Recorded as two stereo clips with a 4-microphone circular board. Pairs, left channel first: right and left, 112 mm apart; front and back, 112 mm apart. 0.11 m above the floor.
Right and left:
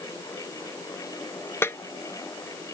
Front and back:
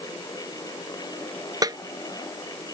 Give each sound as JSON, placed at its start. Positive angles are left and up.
{"t": 1.6, "sound": "a snare drum", "azimuth_deg": -150}